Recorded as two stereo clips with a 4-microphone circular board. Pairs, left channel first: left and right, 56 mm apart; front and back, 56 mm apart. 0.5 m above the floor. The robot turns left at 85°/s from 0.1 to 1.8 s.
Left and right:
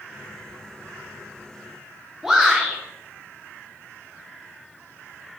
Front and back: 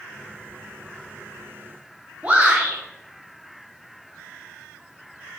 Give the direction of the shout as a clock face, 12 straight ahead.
6 o'clock.